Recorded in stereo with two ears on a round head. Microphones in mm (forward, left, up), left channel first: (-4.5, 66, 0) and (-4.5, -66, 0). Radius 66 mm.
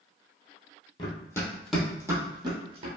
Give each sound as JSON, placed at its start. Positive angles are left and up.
{"t": 1.0, "sound": "running footsteps", "side_deg": 35, "distance_m": 1.0}